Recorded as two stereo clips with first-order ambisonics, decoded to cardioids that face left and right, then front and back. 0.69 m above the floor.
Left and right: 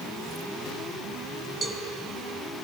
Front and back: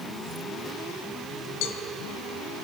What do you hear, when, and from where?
1.6 s a cowbell: 20° right, 2 m